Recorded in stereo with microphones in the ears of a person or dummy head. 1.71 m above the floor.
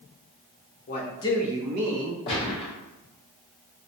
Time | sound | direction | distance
0.9 | a man speaking | 45° left (ahead or behind) | 1.0 m
2.3 | a gunshot | 25° left (ahead or behind) | 0.8 m